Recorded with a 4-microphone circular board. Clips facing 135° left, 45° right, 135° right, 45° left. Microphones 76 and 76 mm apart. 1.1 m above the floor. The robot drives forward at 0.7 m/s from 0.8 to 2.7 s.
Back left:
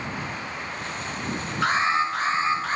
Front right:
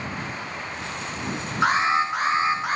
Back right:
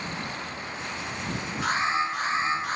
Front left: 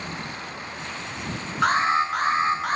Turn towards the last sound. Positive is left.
turn(degrees=30)